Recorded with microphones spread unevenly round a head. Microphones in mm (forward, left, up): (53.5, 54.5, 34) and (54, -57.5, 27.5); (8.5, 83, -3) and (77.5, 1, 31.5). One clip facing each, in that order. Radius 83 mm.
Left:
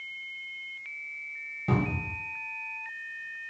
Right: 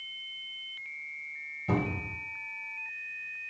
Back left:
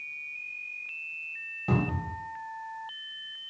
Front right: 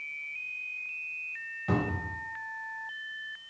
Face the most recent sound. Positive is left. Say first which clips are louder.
# left 2 dB, back left 1 dB
turn(degrees=70)